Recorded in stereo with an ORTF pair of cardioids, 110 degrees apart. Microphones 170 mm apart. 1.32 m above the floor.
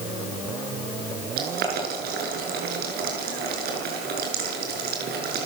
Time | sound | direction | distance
1.4 | boiling | 65° right | 7 m